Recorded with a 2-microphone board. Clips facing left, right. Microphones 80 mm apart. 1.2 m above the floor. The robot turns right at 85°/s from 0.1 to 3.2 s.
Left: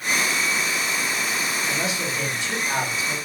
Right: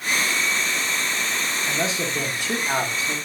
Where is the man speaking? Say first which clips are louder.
Right 1 dB; 165° right, 0.8 m; by 3.1 s 35° right, 0.8 m.